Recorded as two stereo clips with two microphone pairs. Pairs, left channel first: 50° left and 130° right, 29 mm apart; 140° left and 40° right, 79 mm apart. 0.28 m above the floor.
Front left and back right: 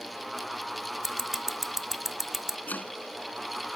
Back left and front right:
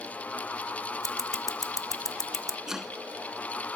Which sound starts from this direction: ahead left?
Chopping, at 2.7 s.